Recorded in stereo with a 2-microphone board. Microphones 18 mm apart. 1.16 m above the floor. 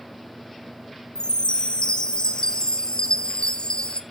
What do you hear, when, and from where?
1.1 s a chime: 70° left (ahead or behind), 0.8 m